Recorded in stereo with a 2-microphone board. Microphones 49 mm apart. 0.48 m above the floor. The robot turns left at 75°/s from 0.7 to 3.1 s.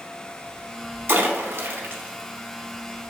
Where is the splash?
55° right (ahead or behind), 0.8 m; by 3.1 s 25° left (ahead or behind), 0.8 m.